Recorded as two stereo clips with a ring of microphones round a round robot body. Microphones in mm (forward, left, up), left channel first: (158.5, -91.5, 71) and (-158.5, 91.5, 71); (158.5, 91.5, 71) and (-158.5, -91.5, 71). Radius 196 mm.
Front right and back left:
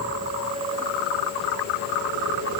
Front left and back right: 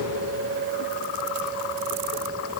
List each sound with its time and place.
Only background noise.